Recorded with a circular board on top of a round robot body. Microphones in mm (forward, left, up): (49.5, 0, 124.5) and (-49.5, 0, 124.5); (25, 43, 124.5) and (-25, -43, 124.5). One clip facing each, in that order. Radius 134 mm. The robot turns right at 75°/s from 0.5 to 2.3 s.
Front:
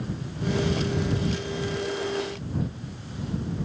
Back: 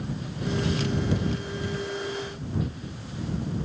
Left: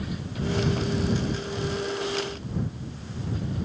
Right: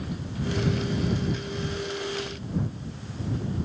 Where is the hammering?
I don't hear hammering.